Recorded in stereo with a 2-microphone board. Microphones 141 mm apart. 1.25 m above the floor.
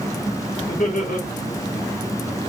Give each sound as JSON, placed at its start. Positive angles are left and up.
{"t": 0.7, "sound": "laughter", "side_deg": 70, "distance_m": 2.5}